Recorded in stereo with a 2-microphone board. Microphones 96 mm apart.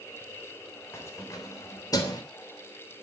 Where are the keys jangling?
25° left (ahead or behind), 3.5 m; by 2.2 s 45° left (ahead or behind), 3 m.